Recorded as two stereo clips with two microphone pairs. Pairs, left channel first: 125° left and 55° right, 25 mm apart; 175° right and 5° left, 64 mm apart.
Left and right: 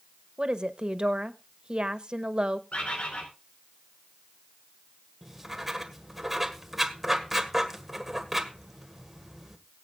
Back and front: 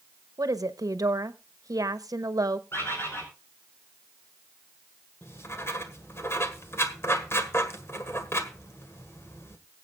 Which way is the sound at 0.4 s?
5° right.